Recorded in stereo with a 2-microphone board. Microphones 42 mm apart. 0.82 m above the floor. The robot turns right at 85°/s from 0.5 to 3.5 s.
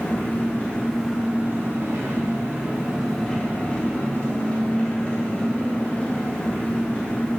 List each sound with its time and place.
0.0 s an engine running: 135° left, 0.9 m; by 7.4 s 30° left, 0.9 m